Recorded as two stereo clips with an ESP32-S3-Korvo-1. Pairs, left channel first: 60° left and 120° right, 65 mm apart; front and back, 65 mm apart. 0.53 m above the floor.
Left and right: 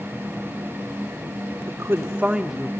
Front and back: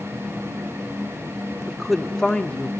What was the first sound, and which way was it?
A woman speaking, 95° right.